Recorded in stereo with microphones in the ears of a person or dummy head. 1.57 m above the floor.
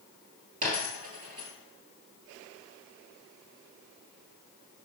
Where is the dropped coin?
30° right (ahead or behind), 1.7 m.